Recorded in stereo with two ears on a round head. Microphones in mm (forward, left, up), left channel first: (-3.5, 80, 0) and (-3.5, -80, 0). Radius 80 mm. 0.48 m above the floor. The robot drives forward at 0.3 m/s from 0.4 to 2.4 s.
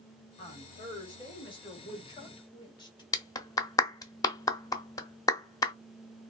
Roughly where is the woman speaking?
Left.